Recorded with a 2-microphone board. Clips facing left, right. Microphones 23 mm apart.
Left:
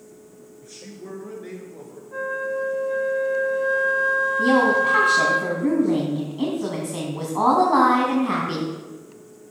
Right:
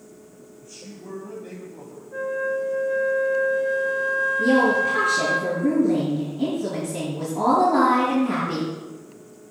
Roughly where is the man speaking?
Left.